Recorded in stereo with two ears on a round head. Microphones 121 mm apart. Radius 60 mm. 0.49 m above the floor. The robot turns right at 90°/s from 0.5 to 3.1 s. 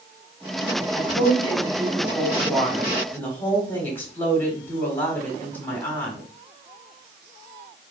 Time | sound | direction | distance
0.9 | a woman speaking | 10° right (ahead or behind) | 1.3 m